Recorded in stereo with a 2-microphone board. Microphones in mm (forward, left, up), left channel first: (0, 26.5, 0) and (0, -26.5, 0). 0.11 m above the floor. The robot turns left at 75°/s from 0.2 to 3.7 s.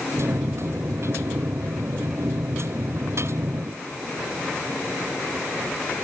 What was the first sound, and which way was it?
Only background noise.